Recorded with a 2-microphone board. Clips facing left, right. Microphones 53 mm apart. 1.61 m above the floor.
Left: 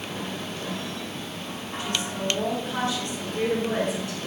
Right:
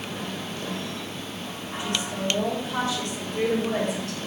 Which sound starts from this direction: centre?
A woman speaking, at 1.8 s.